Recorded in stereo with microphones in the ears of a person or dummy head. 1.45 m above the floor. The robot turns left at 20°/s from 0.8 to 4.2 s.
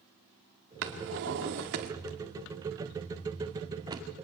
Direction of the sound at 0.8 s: 65° right (ahead or behind).